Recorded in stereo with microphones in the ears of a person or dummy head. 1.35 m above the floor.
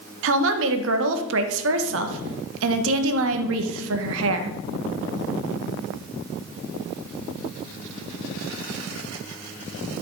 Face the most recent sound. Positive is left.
turn(degrees=-75)  # may be behind; listen again after turning